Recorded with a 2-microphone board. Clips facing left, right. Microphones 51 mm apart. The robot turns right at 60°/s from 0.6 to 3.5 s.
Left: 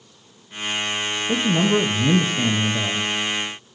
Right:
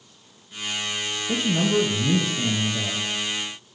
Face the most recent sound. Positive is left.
turn(degrees=160)